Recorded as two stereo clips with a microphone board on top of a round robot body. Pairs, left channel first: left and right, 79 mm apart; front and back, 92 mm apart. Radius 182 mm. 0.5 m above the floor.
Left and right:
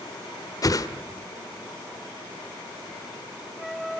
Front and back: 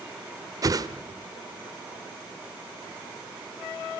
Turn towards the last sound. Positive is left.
turn(degrees=130)